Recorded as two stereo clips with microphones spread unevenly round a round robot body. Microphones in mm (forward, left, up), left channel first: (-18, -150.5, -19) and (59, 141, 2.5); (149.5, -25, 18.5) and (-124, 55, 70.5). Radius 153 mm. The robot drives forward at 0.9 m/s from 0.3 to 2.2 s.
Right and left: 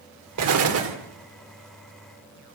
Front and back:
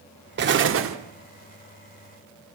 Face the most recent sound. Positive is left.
turn(degrees=145)